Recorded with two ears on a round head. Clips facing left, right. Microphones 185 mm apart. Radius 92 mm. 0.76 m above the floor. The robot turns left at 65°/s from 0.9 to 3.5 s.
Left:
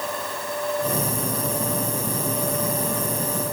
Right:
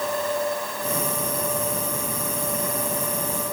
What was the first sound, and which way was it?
Only background noise.